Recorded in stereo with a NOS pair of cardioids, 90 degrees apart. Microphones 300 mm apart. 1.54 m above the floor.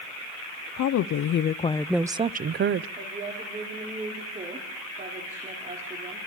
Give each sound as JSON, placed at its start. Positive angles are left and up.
{"t": 0.8, "sound": "a woman speaking", "azimuth_deg": 65, "distance_m": 0.8}
{"t": 3.0, "sound": "a woman speaking", "azimuth_deg": -25, "distance_m": 4.0}